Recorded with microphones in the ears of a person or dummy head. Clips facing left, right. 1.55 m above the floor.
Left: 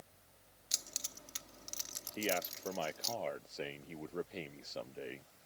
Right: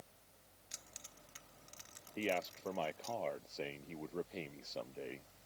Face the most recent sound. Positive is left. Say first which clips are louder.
# left 1 dB
turn(degrees=10)  # may be behind; listen again after turning